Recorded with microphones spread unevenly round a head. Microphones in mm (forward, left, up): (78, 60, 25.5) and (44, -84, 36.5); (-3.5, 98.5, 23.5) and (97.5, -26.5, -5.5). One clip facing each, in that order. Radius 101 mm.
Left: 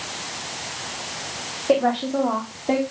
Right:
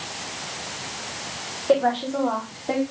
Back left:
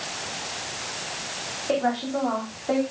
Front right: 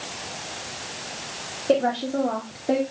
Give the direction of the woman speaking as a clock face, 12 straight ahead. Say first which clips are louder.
Left 1 dB, front right 3 dB; 12 o'clock.